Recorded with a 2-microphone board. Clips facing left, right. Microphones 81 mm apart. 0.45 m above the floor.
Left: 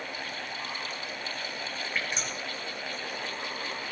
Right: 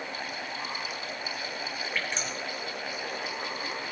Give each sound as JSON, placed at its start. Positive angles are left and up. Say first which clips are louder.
{"t": 1.9, "sound": "dripping", "louder": "even", "side_deg": 5, "distance_m": 4.0}